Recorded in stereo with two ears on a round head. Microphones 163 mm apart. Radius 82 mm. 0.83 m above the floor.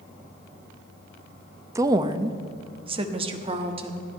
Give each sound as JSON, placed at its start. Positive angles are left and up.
{"t": 1.8, "sound": "a woman speaking", "side_deg": -15, "distance_m": 0.6}